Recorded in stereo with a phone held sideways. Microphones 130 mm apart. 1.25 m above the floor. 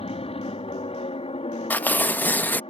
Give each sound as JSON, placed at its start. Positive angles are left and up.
{"t": 0.0, "sound": "an aircraft", "side_deg": 45}
{"t": 1.7, "sound": "tearing paper", "side_deg": 15}